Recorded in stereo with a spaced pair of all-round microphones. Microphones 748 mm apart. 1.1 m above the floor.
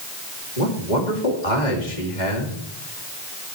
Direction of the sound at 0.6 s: 70° left (ahead or behind).